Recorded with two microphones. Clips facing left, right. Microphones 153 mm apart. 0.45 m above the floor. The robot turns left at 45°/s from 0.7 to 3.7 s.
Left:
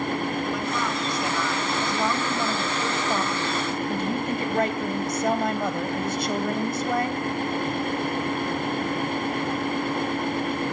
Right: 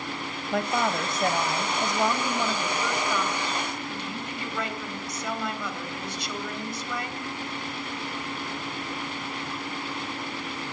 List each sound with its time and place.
0.5 s a woman speaking: 105° right, 2.5 m; by 7.3 s 120° left, 2.5 m